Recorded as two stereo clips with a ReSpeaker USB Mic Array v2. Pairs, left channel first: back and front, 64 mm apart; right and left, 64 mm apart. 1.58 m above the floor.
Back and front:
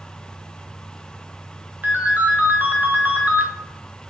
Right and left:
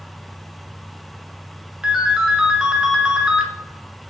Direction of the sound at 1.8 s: 20° left.